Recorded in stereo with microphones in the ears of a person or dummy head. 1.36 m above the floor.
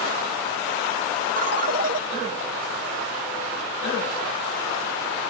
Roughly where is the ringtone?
Right.